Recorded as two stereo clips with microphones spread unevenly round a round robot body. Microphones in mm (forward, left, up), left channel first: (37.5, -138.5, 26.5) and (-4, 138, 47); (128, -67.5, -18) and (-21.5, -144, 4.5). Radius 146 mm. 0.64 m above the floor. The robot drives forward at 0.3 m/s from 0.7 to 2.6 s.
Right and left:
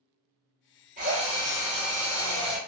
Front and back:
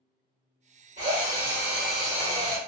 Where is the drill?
160° left, 1.5 m; by 2.6 s 165° left, 1.9 m.